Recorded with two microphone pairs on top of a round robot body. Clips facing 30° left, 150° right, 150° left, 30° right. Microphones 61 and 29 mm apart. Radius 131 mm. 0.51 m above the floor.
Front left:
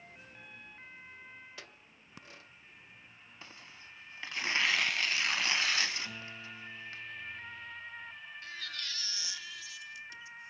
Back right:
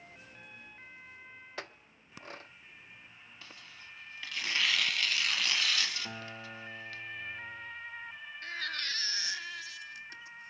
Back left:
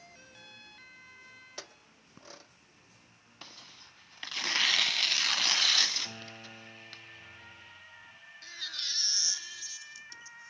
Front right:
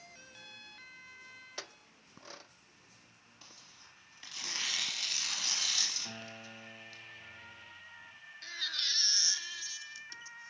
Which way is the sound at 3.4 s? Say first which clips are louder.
Even, back left 7 dB; 100° left.